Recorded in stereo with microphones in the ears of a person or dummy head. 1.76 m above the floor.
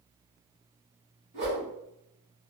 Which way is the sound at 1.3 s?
35° right (ahead or behind).